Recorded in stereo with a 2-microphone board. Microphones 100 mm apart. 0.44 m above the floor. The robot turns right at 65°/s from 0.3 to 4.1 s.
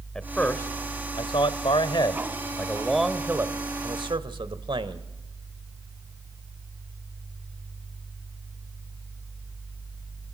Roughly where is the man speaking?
Centre.